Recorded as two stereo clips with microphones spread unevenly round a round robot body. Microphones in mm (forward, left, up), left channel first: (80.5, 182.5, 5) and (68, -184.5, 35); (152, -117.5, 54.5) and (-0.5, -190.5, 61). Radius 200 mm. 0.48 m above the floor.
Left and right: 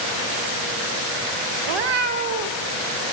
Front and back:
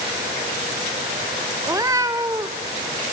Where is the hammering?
No hammering in this recording.